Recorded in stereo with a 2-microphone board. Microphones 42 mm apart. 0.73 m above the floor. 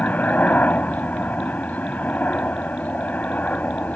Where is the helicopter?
40° left (ahead or behind).